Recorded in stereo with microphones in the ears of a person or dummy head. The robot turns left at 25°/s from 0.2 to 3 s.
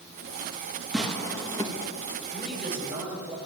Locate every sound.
0.9 s tearing paper: 5° right (ahead or behind), 1.5 m; by 1.7 s 15° left (ahead or behind), 1.5 m
2.3 s a man speaking: 10° left (ahead or behind), 6.5 m; by 3.4 s 10° right (ahead or behind), 6.5 m